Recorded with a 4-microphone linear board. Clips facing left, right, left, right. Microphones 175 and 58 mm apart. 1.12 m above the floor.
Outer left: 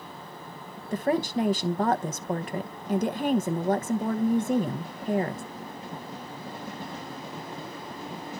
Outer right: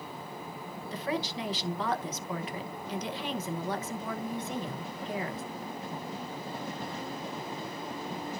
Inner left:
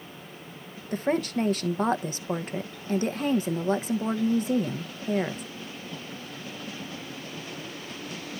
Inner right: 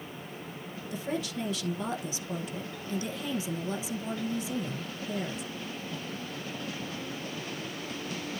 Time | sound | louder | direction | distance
0.9 | a woman speaking | outer left 8 dB, inner left 8 dB | 50° left (ahead or behind) | 0.9 m